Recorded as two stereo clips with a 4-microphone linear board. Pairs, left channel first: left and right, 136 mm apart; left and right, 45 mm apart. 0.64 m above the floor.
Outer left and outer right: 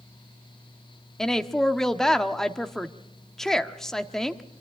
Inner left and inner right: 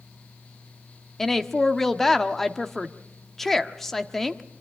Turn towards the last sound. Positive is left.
turn(degrees=5)  # may be behind; listen again after turning